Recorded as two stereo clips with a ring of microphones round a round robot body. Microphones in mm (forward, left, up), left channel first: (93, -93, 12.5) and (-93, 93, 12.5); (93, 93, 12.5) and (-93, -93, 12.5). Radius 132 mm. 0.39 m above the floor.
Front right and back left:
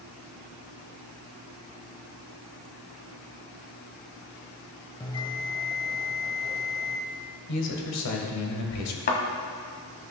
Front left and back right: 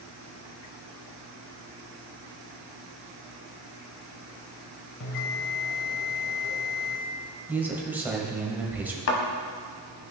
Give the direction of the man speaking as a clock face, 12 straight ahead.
2 o'clock.